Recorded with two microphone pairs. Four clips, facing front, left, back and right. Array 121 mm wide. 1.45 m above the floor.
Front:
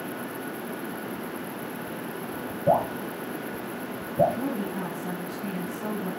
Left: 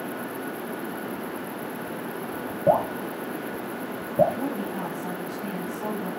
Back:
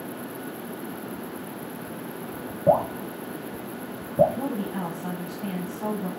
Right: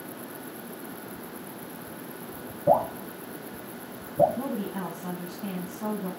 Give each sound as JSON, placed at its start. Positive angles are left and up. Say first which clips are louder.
{"t": 2.7, "sound": "dripping", "louder": "left 1 dB, back 2 dB", "azimuth_deg": 125, "distance_m": 9.0}
{"t": 4.3, "sound": "a woman speaking", "louder": "left 2 dB, even", "azimuth_deg": 160, "distance_m": 7.0}